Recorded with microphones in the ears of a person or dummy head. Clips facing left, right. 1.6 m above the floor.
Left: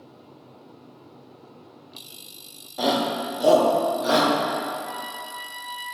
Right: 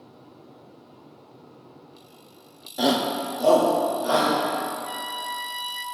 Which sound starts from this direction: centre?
A shout, at 2.8 s.